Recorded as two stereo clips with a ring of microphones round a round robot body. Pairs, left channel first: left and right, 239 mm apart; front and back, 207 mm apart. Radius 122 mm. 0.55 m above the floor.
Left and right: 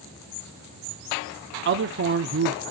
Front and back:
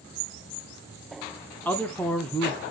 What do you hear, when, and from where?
1.6 s a man speaking: 80° right, 0.9 m